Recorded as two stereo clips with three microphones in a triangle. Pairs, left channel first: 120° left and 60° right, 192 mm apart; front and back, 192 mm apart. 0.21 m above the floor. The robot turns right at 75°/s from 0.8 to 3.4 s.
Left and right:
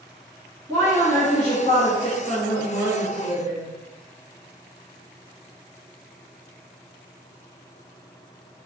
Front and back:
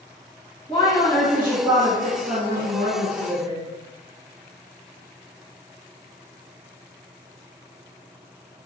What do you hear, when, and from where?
0.7 s a woman speaking: 55° left, 1.7 m; by 3.6 s 110° right, 1.7 m